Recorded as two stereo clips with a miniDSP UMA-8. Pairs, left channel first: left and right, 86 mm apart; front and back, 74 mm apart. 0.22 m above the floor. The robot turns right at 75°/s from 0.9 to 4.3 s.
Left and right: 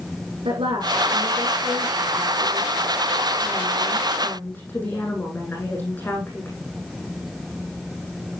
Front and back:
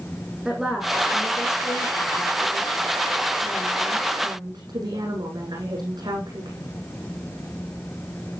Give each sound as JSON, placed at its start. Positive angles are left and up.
{"t": 0.5, "sound": "a woman speaking", "azimuth_deg": -95, "distance_m": 9.0}